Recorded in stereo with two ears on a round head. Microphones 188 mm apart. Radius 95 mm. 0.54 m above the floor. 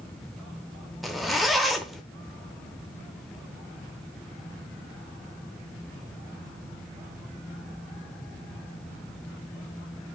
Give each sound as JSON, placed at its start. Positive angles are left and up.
{"t": 1.0, "sound": "a zipper", "side_deg": 0, "distance_m": 0.7}